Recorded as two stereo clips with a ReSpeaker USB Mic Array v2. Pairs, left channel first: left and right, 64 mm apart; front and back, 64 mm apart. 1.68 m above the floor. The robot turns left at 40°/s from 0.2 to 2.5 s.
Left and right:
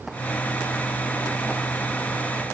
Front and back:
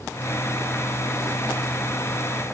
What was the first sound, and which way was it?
Only background noise.